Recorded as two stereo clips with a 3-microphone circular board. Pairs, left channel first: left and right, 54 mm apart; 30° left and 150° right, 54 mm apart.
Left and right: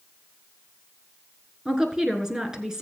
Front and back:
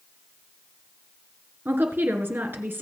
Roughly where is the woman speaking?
Behind.